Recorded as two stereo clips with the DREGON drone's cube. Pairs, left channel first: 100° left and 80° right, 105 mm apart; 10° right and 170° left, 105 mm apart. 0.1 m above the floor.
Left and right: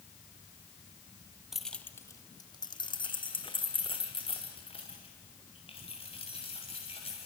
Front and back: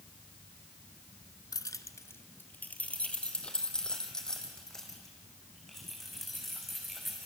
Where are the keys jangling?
5° left, 1.1 m; by 7.3 s 80° left, 8.5 m.